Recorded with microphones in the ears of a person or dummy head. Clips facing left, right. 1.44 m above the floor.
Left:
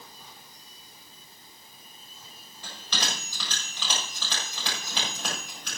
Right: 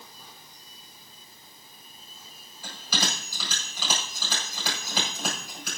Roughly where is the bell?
Centre.